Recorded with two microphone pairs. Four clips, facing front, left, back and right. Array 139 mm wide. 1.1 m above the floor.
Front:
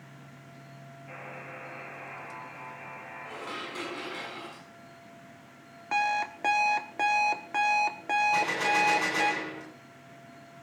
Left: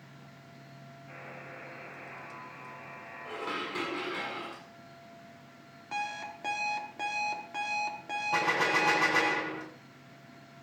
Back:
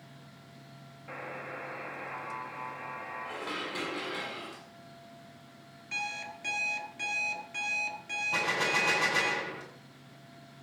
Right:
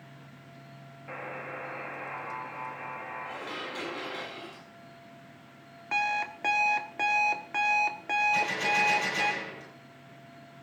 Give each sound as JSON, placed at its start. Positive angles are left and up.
{"t": 1.1, "sound": "a buzzer", "azimuth_deg": -115, "distance_m": 2.5}
{"t": 3.2, "sound": "dishes clattering", "azimuth_deg": 90, "distance_m": 6.5}
{"t": 5.9, "sound": "an alarm clock", "azimuth_deg": -25, "distance_m": 1.5}
{"t": 8.3, "sound": "a gunshot", "azimuth_deg": 95, "distance_m": 8.0}